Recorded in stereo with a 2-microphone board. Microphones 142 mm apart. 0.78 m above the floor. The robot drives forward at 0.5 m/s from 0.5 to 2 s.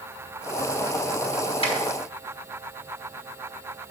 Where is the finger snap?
40° left (ahead or behind), 5 m.